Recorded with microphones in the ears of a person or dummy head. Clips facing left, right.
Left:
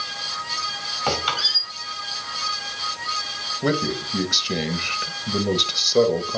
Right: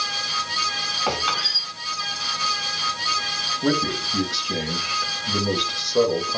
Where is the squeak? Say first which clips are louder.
Left 1 dB; 15° left (ahead or behind), 4.5 m.